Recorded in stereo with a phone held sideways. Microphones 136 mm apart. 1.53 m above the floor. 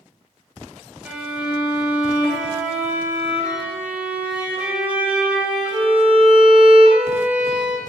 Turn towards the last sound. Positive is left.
turn(degrees=-10)  # may be behind; listen again after turning